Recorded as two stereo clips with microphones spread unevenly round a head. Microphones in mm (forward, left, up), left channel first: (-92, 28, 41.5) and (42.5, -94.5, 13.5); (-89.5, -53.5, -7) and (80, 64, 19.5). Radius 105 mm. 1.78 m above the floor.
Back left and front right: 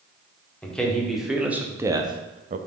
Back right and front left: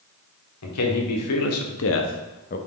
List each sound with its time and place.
0.6 s a man speaking: 140° right, 1.8 m; by 2.6 s 90° right, 0.8 m